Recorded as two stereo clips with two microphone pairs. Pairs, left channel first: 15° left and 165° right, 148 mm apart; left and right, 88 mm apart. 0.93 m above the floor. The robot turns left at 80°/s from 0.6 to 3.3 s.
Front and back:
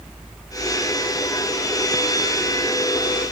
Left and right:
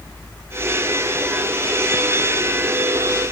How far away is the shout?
No shout in this recording.